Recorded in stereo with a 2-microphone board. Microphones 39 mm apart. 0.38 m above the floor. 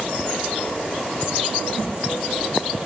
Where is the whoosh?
15° right (ahead or behind), 4 m.